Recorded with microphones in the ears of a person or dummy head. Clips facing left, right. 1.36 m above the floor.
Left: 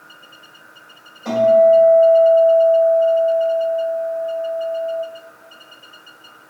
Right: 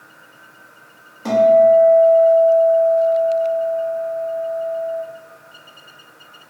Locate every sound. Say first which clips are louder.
1.2 s a guitar: even; 80° right, 1.8 m